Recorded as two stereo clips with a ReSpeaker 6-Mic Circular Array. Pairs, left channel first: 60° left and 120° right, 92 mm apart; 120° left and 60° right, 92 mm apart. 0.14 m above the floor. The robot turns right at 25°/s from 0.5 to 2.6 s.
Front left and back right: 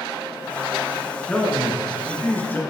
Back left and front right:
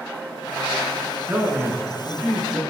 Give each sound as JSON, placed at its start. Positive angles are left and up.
{"t": 1.3, "sound": "a man speaking", "azimuth_deg": -15, "distance_m": 1.5}